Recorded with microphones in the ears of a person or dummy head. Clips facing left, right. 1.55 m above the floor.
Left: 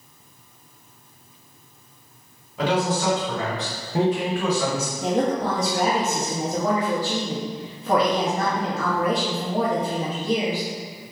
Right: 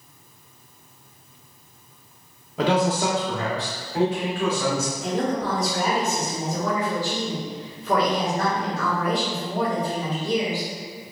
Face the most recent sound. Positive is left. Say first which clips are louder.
# left 5 dB
turn(degrees=55)  # may be behind; listen again after turning